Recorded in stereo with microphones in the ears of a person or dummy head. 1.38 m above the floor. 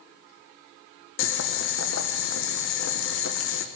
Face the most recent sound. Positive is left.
turn(degrees=60)  # may be behind; listen again after turning